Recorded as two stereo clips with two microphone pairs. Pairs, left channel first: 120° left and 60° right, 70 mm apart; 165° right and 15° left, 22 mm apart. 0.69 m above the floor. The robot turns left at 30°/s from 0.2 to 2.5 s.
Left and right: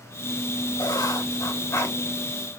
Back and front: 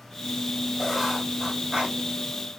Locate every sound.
0.8 s writing: 100° left, 3 m; by 2.0 s 65° left, 3 m